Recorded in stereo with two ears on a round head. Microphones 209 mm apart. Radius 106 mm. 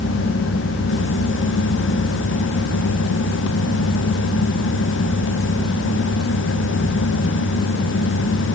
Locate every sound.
Only background noise.